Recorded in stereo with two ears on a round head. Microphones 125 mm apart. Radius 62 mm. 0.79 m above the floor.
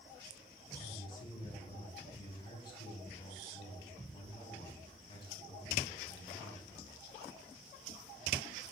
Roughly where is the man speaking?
Left.